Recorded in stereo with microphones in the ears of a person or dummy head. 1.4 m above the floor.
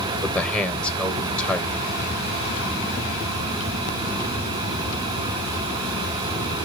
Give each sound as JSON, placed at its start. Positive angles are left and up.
{"t": 0.2, "sound": "a man speaking", "side_deg": 0, "distance_m": 1.0}